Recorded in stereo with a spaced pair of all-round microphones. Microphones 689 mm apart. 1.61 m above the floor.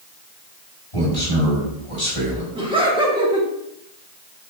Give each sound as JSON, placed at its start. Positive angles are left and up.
{"t": 0.9, "sound": "a man speaking", "side_deg": 50, "distance_m": 2.5}
{"t": 2.5, "sound": "laughter", "side_deg": -5, "distance_m": 1.8}